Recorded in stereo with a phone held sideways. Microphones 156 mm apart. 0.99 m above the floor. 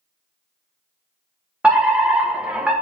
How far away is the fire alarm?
About 1.2 m.